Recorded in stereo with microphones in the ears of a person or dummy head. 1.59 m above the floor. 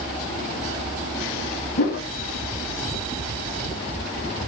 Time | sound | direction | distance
1.8 | a whoosh | 55° left (ahead or behind) | 1.3 m